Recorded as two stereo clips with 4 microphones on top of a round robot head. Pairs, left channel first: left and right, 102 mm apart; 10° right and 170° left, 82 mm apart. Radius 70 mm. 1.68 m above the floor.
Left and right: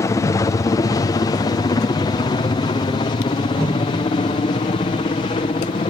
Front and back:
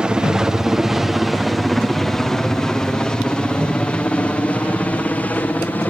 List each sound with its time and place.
0.0 s a helicopter: 100° left; by 5.9 s 55° left